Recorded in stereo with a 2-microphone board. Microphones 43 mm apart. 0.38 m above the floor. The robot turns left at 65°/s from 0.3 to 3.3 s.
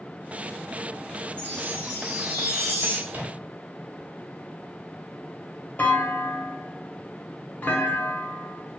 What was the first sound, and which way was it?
A chime, 120° right.